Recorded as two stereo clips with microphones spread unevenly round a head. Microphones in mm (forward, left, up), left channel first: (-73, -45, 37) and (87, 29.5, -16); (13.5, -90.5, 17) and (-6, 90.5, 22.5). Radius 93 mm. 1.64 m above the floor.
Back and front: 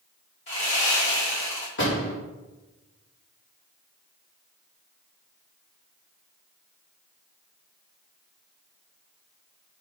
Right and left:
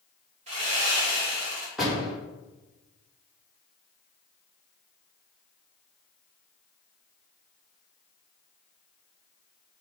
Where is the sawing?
155° left, 3 m.